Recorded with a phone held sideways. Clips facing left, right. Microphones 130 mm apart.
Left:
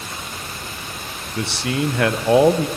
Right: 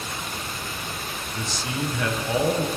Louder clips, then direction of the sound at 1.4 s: Left 8 dB; 70° left (ahead or behind).